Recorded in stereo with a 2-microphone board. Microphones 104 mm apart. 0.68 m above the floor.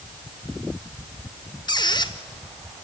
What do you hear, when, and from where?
1.7 s a squeak: 45° left (ahead or behind), 0.9 m